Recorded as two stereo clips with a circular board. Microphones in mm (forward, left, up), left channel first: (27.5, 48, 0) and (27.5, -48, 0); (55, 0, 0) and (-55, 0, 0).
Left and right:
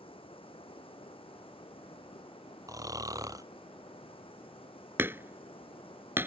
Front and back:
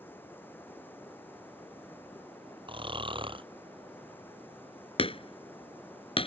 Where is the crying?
I don't hear crying.